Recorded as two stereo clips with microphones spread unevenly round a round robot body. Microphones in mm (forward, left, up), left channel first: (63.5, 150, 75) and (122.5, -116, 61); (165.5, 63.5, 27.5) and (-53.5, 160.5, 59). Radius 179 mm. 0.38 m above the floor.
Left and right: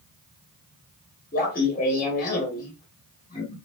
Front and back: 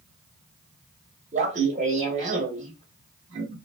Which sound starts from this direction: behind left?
Laughter, at 1.3 s.